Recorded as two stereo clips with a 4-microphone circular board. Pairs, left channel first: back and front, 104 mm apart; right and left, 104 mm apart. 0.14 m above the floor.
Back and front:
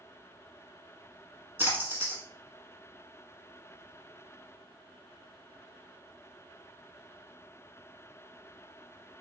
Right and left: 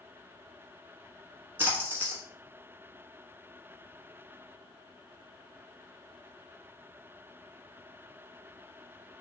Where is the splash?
45° left, 1.1 m.